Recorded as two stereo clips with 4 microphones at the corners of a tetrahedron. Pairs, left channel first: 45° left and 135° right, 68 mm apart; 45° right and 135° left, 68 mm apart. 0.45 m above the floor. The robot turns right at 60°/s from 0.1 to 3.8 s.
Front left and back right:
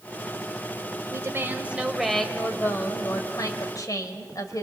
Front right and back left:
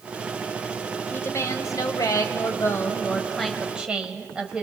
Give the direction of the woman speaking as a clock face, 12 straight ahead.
3 o'clock.